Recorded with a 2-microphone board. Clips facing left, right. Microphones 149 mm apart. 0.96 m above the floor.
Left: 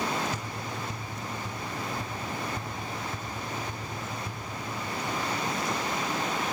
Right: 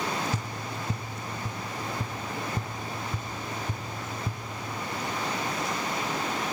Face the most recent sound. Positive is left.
turn(degrees=-35)  # may be behind; listen again after turning